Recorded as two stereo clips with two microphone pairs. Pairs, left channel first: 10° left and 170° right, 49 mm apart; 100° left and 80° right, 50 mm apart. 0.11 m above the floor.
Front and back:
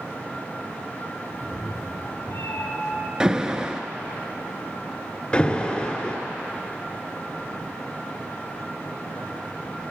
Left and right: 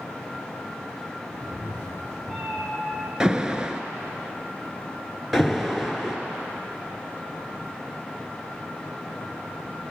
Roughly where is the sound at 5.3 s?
Ahead.